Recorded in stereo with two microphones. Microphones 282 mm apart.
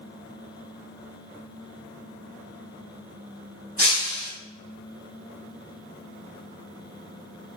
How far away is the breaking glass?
About 1.5 m.